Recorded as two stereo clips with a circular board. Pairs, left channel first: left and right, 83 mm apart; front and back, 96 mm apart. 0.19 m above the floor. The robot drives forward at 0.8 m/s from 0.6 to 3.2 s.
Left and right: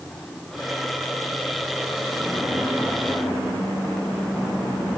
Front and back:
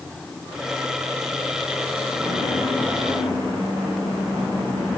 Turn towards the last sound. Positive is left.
No sound to turn to.